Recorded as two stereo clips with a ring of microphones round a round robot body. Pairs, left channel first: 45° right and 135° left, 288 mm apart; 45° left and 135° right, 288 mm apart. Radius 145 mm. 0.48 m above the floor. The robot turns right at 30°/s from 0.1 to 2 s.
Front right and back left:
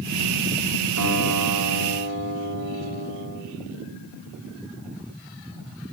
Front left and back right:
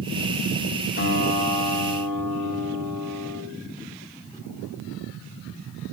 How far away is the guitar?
About 2.5 m.